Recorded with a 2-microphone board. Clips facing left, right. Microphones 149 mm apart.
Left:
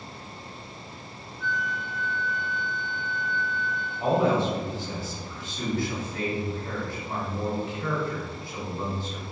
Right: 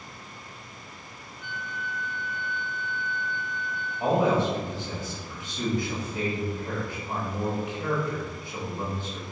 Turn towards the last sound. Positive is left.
turn(degrees=-20)  # may be behind; listen again after turning